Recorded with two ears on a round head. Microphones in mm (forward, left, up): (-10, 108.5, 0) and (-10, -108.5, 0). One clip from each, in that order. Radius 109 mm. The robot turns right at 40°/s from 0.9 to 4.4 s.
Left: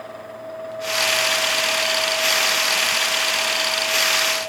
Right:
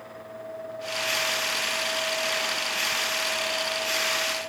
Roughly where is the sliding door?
No sliding door in this recording.